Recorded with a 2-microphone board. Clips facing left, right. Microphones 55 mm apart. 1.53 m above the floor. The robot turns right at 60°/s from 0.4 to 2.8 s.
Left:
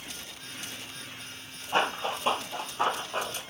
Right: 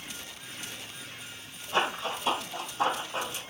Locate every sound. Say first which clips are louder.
1.7 s running footsteps: left 1 dB; 35° left (ahead or behind), 1.8 m; by 3.4 s 45° left (ahead or behind), 2 m